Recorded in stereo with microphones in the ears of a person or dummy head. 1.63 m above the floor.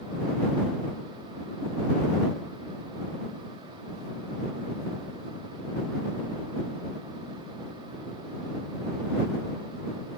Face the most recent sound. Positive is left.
No sound to turn to.